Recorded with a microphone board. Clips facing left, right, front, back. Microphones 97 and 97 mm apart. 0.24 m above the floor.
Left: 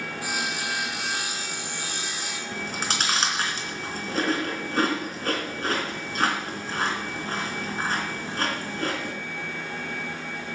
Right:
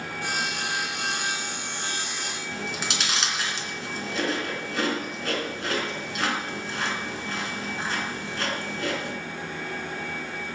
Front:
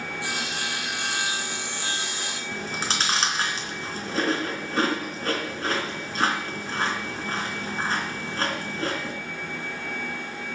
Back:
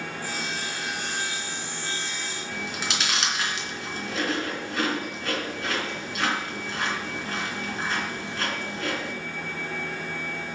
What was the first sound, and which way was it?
Sawing, straight ahead.